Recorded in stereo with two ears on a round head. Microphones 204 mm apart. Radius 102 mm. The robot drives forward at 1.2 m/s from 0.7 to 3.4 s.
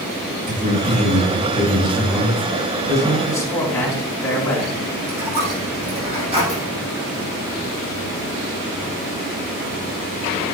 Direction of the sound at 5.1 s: 25° right (ahead or behind).